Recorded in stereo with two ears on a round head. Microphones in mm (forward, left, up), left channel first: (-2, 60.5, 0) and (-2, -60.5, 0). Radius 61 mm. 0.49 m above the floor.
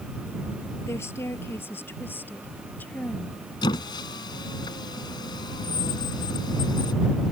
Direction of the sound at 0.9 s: 20° left (ahead or behind).